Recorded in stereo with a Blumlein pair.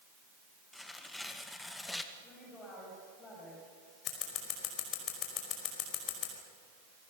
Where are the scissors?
35° left, 5 m.